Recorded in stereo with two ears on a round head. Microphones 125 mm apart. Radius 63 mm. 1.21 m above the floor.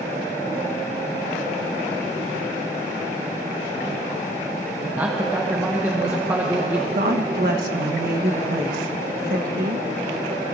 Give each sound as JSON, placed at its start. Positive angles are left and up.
{"t": 5.0, "sound": "a man speaking", "side_deg": -15, "distance_m": 1.1}
{"t": 7.0, "sound": "a woman speaking", "side_deg": -70, "distance_m": 1.5}